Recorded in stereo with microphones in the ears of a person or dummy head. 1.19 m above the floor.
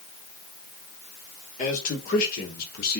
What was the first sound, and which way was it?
A man speaking, 45° left (ahead or behind).